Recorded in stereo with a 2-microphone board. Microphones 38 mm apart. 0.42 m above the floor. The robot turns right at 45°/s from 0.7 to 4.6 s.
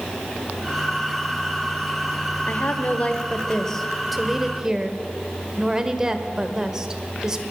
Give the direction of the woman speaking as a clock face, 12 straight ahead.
8 o'clock.